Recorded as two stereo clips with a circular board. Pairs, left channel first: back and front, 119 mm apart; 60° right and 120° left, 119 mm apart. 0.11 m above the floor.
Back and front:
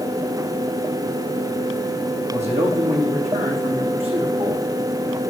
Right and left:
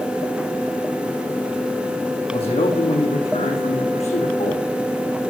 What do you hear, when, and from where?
2.3 s a man speaking: 25° right, 5 m; by 4.6 s 35° right, 6 m